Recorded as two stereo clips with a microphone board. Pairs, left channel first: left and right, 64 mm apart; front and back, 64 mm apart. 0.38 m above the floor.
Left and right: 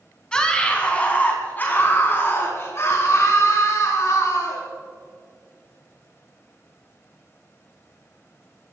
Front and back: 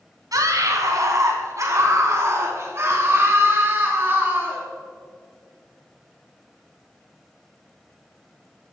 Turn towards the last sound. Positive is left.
turn(degrees=120)